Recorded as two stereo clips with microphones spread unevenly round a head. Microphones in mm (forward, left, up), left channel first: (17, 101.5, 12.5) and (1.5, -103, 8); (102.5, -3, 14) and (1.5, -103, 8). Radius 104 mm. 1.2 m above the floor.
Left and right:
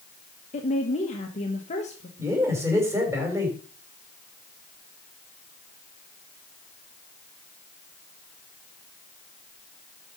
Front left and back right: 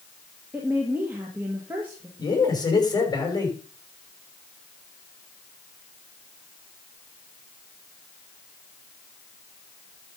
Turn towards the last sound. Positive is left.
turn(degrees=-15)